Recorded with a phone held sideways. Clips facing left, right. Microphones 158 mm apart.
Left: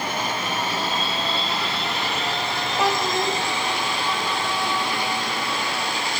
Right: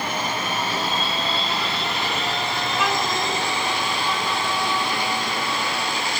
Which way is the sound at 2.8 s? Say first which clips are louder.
Left 3 dB; 35° left (ahead or behind).